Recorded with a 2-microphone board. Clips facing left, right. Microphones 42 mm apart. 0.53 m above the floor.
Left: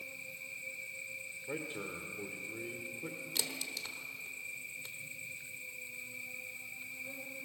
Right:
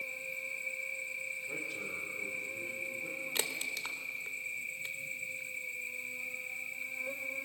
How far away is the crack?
About 1.4 m.